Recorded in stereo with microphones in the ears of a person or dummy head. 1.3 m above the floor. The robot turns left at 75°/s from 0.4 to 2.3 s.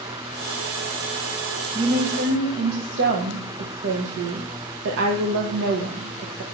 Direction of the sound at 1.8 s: 20° right.